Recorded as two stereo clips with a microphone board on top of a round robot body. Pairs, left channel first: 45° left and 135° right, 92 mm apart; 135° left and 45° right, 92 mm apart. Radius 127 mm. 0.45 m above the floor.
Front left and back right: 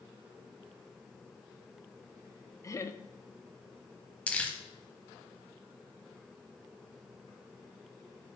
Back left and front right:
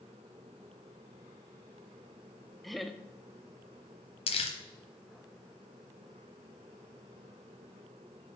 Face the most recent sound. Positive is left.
turn(degrees=125)